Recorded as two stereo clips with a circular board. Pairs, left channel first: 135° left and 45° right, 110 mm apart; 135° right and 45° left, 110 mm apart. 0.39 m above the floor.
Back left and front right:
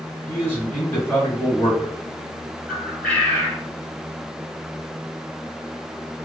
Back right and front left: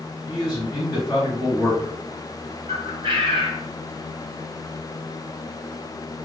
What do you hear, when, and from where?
0.3 s a man speaking: 170° right, 2.0 m
2.7 s a bird: 55° left, 1.2 m